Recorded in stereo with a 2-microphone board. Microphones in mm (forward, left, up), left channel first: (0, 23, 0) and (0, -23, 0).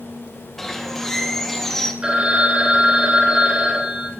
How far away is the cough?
No cough in this recording.